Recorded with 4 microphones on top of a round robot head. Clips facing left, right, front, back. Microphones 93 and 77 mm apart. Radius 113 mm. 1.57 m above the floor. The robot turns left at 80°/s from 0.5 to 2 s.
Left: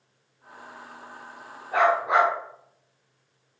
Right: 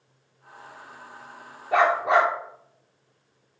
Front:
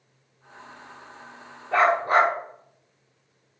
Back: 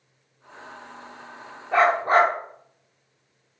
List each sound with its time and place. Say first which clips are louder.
1.7 s a dog barking: right 1 dB, back 1 dB; 90° right, 1.7 m; by 2.3 s 115° right, 1.7 m